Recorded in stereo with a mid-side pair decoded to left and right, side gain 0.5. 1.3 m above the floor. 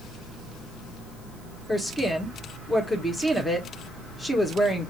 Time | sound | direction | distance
1.7 | a woman speaking | 10° left | 1.6 m